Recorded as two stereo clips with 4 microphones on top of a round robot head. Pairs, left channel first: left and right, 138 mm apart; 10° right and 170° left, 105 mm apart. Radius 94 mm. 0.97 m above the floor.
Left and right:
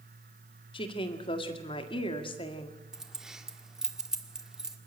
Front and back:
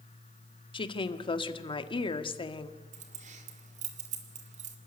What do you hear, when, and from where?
0.7 s a woman speaking: 30° left, 1.8 m
2.9 s keys jangling: 175° right, 2.0 m